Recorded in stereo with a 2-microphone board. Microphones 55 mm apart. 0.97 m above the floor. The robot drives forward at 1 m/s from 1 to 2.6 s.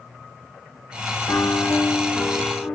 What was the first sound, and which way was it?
A piano, 65° left (ahead or behind).